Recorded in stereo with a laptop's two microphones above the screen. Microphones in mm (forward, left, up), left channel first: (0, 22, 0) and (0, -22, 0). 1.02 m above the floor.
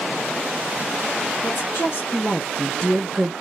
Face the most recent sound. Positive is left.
turn(degrees=-20)  # may be behind; listen again after turning